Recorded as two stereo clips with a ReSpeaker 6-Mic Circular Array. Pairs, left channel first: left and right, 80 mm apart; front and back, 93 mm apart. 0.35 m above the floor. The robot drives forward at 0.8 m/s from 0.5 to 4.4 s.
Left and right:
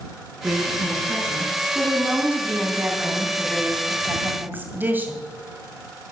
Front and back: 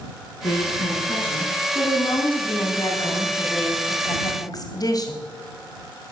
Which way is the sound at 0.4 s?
10° right.